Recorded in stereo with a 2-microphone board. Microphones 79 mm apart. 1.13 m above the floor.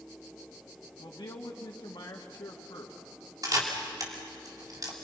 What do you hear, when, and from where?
1.0 s a man speaking: 75° left (ahead or behind), 2 m
3.4 s a camera shutter: 50° right (ahead or behind), 3 m